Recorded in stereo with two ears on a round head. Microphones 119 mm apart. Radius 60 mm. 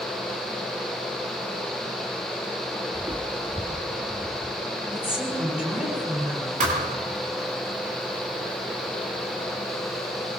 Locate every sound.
2.9 s footsteps: 25° right (ahead or behind), 1.9 m; by 4.5 s centre (ahead or behind), 3.5 m
4.9 s a woman speaking: 5° right (ahead or behind), 8 m
6.6 s a thud: 65° right (ahead or behind), 7 m